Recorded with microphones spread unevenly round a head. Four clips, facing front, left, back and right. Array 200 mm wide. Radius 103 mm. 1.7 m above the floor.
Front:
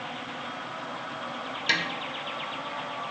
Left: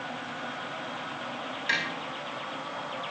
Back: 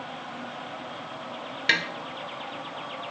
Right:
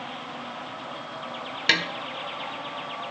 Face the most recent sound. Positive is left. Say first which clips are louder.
# right 5 dB, back 3 dB
turn(degrees=-100)